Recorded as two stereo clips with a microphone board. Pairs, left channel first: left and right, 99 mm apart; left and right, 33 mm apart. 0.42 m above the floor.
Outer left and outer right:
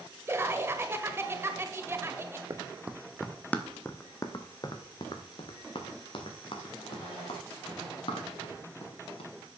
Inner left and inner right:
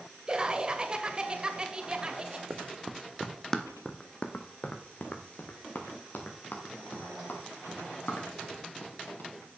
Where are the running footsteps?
30° right (ahead or behind), 0.9 m; by 9.3 s 65° left (ahead or behind), 4.5 m.